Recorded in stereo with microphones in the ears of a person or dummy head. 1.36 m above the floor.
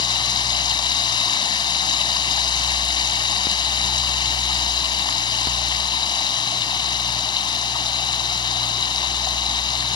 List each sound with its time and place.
0.0 s running water: 25° left (ahead or behind)